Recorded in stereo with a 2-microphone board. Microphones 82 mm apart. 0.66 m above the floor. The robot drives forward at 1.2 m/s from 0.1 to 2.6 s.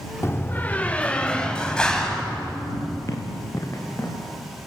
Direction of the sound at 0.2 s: 30° left (ahead or behind).